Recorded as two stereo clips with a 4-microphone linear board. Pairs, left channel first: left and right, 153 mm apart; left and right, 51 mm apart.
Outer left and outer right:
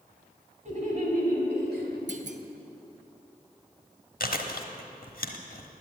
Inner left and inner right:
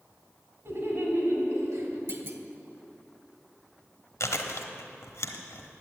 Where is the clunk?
50° right (ahead or behind), 0.8 m.